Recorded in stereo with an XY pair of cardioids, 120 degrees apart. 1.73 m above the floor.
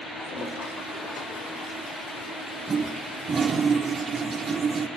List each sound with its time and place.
0.1 s a toilet flushing: 45° left, 4.5 m
2.7 s a toilet flushing: 25° right, 1.6 m